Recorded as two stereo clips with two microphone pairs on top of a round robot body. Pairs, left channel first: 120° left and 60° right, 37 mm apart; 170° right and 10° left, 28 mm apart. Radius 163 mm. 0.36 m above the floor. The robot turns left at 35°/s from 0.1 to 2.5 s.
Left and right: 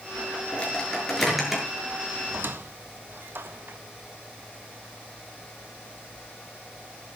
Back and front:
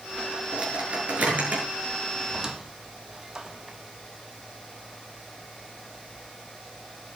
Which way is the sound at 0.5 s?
65° left.